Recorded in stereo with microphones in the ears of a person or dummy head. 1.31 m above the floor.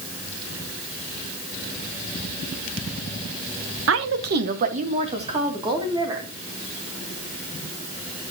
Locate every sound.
3.9 s a woman speaking: 75° right (ahead or behind), 1.2 m; by 6.3 s 20° right (ahead or behind), 3 m